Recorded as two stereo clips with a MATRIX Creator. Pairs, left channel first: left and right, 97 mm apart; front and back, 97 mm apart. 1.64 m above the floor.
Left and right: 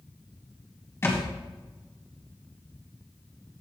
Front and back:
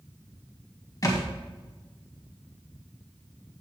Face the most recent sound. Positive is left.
turn(degrees=40)